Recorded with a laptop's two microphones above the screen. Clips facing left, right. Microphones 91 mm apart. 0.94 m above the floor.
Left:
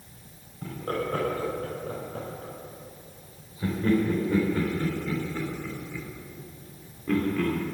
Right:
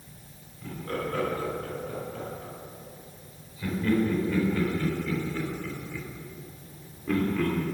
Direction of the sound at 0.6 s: 45° left (ahead or behind).